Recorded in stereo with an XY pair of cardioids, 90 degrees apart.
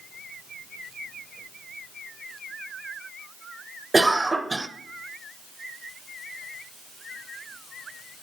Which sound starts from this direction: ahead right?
A cough, at 3.9 s.